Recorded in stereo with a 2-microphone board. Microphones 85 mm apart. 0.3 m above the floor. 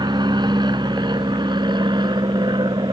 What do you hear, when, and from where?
0.0 s an aircraft: 60° right (ahead or behind)